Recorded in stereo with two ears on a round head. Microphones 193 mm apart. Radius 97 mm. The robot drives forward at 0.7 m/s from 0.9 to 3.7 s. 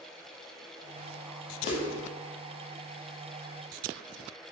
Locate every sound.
1.6 s a whoosh: 35° left (ahead or behind), 1.8 m; by 1.8 s 30° left (ahead or behind), 1.9 m